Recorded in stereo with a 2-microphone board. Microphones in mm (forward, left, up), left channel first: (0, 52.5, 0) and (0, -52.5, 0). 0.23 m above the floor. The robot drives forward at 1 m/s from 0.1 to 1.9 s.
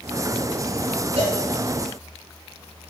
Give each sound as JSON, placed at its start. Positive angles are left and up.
{"t": 1.2, "sound": "a cowbell", "side_deg": -75, "distance_m": 2.0}